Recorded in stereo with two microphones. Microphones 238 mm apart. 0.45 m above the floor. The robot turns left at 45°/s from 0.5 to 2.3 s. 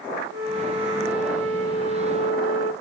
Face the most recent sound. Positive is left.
turn(degrees=-150)